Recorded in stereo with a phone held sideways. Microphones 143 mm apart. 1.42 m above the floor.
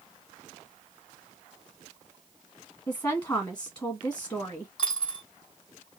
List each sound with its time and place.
2.9 s a woman speaking: 25° left (ahead or behind), 1.4 m
4.8 s a dropped coin: 35° left (ahead or behind), 1.9 m